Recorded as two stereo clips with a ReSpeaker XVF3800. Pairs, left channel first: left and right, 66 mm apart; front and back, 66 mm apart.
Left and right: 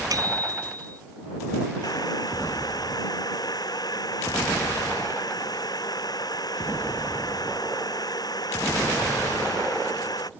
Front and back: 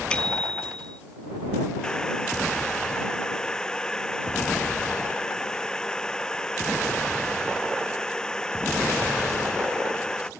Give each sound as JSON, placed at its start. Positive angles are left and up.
{"t": 0.1, "sound": "a bicycle bell", "azimuth_deg": -75}
{"t": 1.8, "sound": "boiling", "azimuth_deg": 80}